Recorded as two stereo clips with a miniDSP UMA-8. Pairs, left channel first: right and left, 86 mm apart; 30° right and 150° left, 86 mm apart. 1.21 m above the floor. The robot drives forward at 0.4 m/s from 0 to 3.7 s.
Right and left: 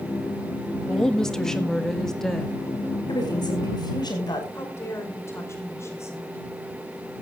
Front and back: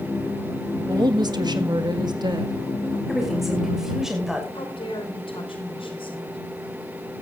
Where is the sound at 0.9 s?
175° right, 1.4 m.